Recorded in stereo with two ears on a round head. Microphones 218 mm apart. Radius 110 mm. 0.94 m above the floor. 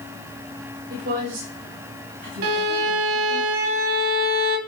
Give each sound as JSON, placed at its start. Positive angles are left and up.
{"t": 0.9, "sound": "a woman speaking", "side_deg": -45, "distance_m": 5.0}
{"t": 2.4, "sound": "a violin", "side_deg": -60, "distance_m": 1.4}